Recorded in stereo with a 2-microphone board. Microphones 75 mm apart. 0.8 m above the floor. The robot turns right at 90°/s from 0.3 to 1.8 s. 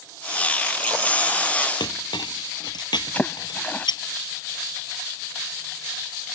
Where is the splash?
20° left (ahead or behind).